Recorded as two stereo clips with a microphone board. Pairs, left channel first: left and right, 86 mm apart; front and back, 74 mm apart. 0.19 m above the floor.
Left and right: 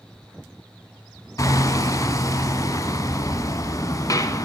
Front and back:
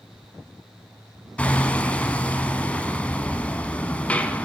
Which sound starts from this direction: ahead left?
Hammering, at 1.4 s.